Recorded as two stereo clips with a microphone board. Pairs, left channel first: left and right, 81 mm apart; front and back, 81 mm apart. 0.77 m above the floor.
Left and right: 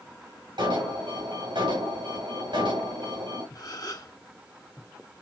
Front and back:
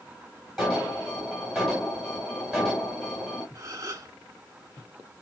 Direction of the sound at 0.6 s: 85° right.